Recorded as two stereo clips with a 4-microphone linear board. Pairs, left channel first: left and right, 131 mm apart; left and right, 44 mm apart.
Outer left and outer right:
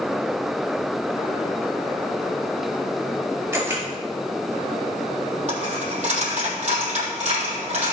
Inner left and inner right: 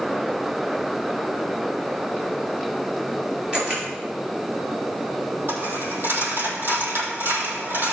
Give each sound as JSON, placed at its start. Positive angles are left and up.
{"t": 3.5, "sound": "a camera shutter", "side_deg": -20, "distance_m": 4.5}
{"t": 5.5, "sound": "a dropped coin", "side_deg": -60, "distance_m": 3.5}